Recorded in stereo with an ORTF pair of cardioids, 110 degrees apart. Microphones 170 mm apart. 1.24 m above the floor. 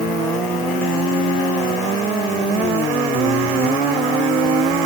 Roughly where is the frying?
No frying in this recording.